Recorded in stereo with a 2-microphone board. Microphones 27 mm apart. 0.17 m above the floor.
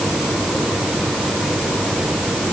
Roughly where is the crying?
I don't hear crying.